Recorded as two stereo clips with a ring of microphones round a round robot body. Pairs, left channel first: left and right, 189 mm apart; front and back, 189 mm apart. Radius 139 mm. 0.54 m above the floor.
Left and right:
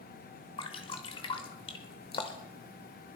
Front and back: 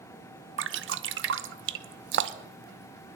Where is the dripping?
160° left, 0.7 m.